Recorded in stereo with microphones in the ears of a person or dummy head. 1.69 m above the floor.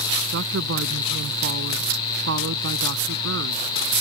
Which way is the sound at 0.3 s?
60° right (ahead or behind).